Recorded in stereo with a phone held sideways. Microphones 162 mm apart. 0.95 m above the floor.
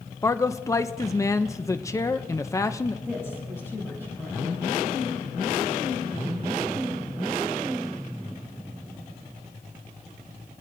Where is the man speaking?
20° left (ahead or behind), 0.5 m.